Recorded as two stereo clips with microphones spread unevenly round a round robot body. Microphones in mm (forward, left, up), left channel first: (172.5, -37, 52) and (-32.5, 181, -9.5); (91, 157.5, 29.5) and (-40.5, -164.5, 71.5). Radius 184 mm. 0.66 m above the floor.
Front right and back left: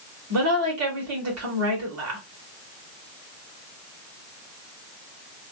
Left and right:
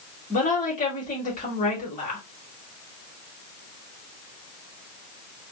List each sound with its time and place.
0.3 s a woman speaking: 130° left, 1.9 m